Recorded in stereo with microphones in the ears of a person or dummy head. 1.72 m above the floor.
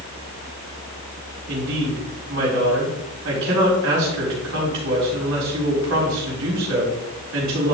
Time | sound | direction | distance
1.5 | a woman speaking | 65° right (ahead or behind) | 5 m